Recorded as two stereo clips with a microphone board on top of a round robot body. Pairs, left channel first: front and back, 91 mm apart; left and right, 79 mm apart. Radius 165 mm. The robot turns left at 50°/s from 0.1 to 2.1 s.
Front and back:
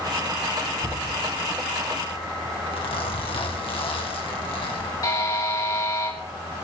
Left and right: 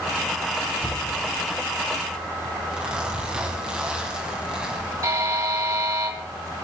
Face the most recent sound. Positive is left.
turn(degrees=-45)